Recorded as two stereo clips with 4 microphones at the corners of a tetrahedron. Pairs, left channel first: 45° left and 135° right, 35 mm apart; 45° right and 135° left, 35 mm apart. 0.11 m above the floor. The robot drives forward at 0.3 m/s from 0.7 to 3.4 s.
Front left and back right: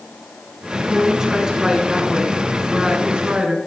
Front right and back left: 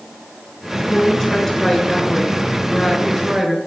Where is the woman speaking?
75° right, 1.6 m; by 3.6 s 140° right, 1.7 m.